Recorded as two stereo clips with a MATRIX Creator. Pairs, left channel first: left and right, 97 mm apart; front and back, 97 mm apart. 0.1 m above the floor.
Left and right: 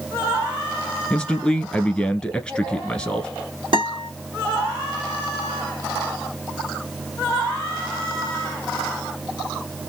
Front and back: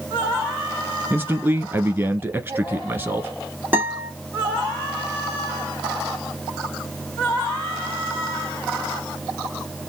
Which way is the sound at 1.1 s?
155° left.